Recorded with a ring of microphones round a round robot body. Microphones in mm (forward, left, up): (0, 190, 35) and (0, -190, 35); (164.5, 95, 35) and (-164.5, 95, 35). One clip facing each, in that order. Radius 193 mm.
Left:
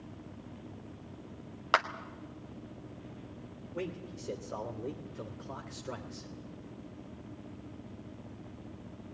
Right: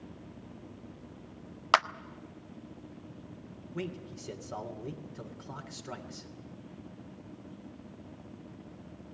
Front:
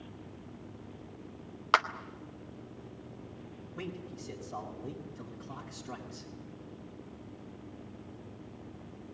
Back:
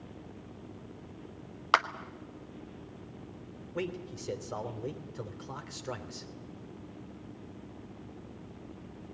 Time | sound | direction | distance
1.7 | a clap | 95° right | 0.5 m
3.7 | a man speaking | 160° right | 3 m